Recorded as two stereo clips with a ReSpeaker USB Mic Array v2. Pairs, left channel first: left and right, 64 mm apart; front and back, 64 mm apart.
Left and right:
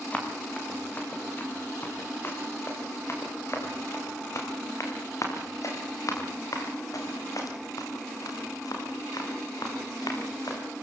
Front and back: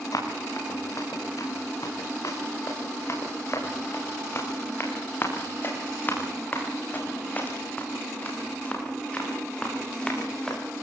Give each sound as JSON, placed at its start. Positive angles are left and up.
{"t": 0.1, "sound": "running footsteps", "azimuth_deg": 25, "distance_m": 7.5}